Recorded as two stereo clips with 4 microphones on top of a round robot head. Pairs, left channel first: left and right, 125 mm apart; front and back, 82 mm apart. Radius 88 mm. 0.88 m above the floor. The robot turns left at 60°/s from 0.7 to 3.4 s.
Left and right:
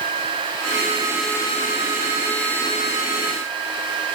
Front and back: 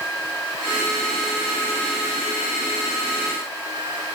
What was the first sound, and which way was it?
Only background noise.